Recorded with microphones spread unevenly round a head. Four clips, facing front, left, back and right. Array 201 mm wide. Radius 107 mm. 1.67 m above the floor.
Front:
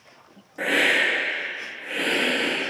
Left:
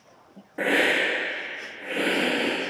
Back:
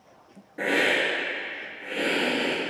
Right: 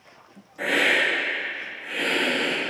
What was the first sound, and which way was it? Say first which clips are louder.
A hiss: left 1 dB, front 1 dB; 100° left.